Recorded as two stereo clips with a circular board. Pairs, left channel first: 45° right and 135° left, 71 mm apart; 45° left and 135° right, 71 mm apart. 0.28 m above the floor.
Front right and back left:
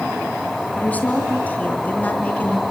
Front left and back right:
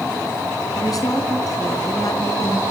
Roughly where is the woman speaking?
Ahead.